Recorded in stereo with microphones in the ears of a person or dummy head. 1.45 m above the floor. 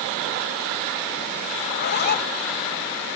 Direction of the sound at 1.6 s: 50° left (ahead or behind).